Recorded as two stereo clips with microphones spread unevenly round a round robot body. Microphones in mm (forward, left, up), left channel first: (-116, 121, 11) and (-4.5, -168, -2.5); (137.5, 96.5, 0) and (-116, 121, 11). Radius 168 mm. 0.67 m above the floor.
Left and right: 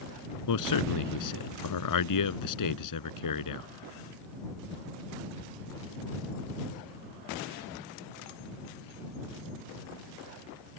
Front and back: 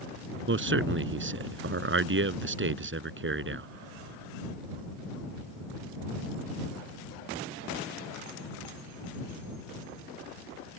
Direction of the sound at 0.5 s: 135° left.